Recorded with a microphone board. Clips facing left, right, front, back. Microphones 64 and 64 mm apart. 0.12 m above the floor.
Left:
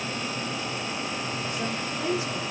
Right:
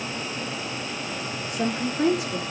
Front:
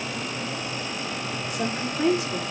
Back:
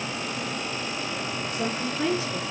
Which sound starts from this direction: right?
A woman speaking, at 1.5 s.